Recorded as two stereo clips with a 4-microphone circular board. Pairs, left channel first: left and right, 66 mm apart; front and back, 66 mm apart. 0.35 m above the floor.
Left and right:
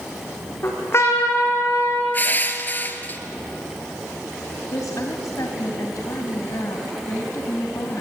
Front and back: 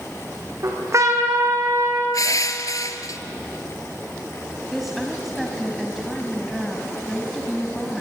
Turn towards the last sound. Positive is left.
turn(degrees=95)